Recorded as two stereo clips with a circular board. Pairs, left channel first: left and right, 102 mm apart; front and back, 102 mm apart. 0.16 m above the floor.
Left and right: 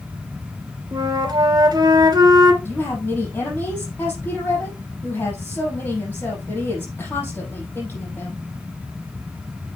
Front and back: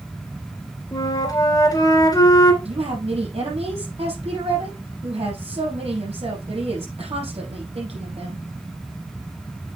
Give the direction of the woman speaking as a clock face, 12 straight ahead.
7 o'clock.